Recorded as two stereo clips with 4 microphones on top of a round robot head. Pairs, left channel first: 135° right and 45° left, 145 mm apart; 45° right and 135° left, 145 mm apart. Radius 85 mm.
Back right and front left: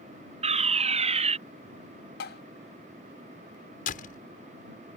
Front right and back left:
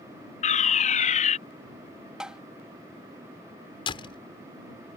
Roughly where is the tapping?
Behind right.